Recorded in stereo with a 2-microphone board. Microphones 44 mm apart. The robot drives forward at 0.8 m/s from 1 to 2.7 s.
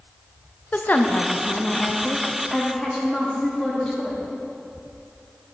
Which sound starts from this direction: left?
A woman speaking, at 0.7 s.